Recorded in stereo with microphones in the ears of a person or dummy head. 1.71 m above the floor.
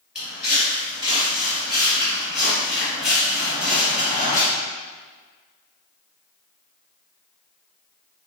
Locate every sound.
0.1 s footsteps: centre (ahead or behind), 1.7 m; by 4.4 s 5° right (ahead or behind), 2.5 m